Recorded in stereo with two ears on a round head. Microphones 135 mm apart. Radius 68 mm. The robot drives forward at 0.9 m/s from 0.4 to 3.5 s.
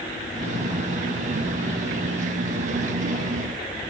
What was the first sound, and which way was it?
Only background noise.